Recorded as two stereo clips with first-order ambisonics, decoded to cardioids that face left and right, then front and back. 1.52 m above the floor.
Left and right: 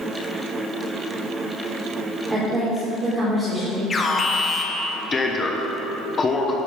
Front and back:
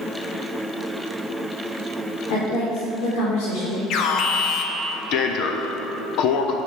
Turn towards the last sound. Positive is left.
turn(degrees=25)